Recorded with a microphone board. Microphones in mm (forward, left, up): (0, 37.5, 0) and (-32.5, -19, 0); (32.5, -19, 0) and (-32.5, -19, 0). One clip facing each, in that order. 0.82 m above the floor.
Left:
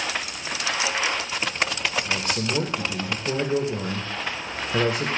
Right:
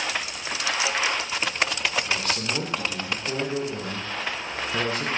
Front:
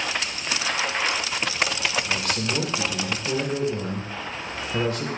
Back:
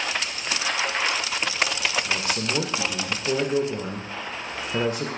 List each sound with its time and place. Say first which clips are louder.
2.0 s a man speaking: left 1 dB, even; 130° left, 0.6 m